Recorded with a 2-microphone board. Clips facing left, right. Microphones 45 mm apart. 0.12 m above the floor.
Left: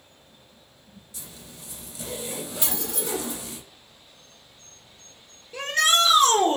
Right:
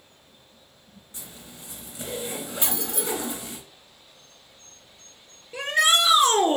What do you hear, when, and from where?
1.1 s a zipper: 30° right (ahead or behind), 1.6 m
2.6 s keys jangling: 20° right (ahead or behind), 1.0 m
5.5 s a shout: 10° right (ahead or behind), 2 m